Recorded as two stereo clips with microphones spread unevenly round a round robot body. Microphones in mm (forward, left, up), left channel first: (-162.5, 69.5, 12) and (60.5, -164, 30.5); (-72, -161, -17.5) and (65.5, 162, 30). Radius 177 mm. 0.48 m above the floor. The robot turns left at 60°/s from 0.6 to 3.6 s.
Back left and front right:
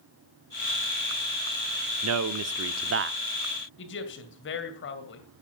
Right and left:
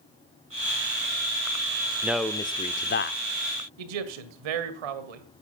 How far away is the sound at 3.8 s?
About 2 m.